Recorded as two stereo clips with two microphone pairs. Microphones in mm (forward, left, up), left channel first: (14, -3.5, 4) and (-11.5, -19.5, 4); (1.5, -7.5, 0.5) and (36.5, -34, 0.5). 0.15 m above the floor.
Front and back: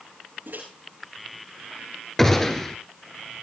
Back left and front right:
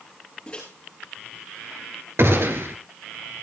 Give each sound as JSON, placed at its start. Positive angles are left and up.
{"t": 0.5, "sound": "a microwave", "azimuth_deg": -150, "distance_m": 10.0}
{"t": 2.2, "sound": "a gunshot", "azimuth_deg": -40, "distance_m": 2.5}